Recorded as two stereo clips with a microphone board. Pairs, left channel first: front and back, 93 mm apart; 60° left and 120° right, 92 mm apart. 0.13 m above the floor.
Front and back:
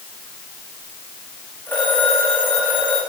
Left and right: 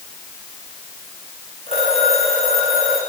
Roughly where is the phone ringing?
Left.